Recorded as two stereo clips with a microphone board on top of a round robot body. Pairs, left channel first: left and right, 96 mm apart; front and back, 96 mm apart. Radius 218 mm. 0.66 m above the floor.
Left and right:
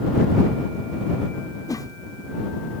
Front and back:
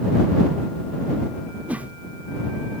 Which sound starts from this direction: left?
A whoosh, at 1.7 s.